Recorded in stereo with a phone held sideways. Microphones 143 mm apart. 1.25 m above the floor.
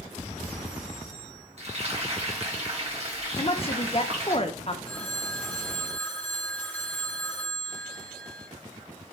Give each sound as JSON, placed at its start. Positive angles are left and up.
{"t": 1.6, "sound": "frying", "side_deg": -50, "distance_m": 2.0}
{"t": 3.4, "sound": "a woman speaking", "side_deg": 45, "distance_m": 1.0}
{"t": 4.8, "sound": "a phone ringing", "side_deg": 10, "distance_m": 3.0}